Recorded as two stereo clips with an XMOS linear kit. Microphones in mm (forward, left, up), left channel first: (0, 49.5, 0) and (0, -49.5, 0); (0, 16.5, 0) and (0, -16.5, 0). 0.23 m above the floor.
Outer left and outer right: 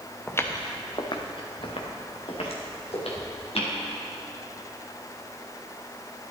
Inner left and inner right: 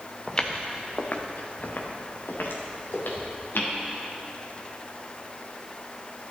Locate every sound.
0.3 s footsteps: 20° left (ahead or behind), 1.4 m; by 3.8 s 85° left, 4 m